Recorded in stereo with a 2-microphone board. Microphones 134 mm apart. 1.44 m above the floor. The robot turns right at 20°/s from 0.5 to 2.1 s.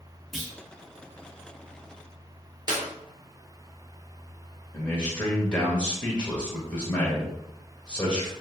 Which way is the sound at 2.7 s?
30° right (ahead or behind).